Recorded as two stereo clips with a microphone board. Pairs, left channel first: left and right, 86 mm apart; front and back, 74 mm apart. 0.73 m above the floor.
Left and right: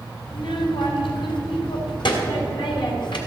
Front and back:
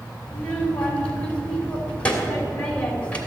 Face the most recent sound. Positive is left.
turn(degrees=70)